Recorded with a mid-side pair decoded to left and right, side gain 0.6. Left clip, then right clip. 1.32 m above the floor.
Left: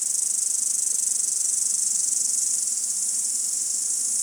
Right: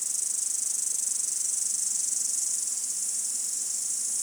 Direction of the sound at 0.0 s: 20° left.